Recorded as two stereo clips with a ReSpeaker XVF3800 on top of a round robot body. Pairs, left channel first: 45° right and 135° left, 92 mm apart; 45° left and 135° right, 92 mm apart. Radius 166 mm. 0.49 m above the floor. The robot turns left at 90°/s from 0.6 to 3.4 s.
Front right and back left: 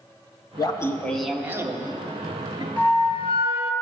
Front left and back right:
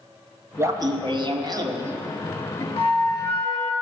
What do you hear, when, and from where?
0.6 s laughter: 80° right, 1.7 m; by 2.7 s 95° left, 1.7 m
2.8 s a flute: 25° left, 1.0 m; by 3.7 s 30° right, 1.0 m